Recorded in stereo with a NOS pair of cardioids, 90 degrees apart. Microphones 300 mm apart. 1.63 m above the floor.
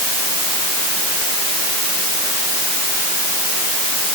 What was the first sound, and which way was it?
Only background noise.